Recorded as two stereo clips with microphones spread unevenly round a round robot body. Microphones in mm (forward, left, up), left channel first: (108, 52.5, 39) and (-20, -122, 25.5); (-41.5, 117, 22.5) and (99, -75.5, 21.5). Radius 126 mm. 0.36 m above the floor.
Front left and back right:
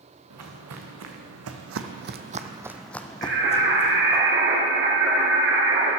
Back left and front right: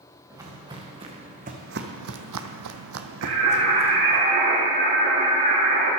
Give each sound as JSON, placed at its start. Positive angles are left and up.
{"t": 0.3, "sound": "footsteps", "azimuth_deg": -130, "distance_m": 2.0}
{"t": 3.2, "sound": "singing", "azimuth_deg": -90, "distance_m": 3.5}